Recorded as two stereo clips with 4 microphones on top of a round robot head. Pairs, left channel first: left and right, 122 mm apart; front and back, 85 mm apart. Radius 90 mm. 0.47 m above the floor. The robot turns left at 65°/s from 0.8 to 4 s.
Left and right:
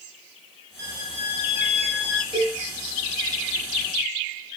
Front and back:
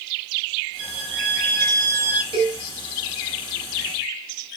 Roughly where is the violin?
Behind.